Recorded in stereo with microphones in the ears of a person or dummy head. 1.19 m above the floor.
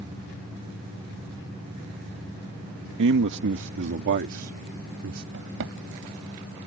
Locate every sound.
3.0 s a man speaking: 60° right (ahead or behind); by 5.2 s 65° right (ahead or behind)
5.3 s a drawer: 70° right (ahead or behind)